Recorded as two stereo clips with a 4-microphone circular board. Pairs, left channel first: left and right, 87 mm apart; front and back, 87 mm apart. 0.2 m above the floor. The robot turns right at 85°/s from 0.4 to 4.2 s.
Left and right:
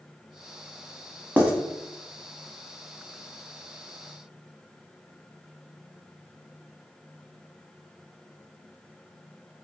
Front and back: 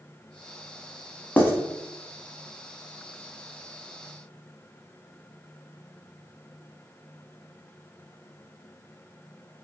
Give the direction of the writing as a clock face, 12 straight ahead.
2 o'clock.